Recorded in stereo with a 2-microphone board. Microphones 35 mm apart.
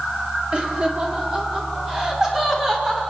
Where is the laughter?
30° right (ahead or behind), 4.5 m; by 3.0 s 15° right (ahead or behind), 6.5 m.